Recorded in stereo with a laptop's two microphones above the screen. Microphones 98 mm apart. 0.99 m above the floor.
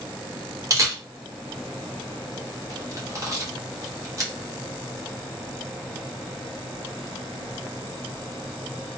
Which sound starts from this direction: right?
A camera shutter, at 0.7 s.